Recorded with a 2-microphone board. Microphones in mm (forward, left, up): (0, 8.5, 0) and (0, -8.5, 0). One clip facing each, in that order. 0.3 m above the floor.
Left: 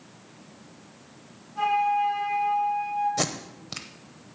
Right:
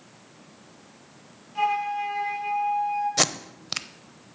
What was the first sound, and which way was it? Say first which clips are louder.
A flute: left 2 dB; 55° right (ahead or behind).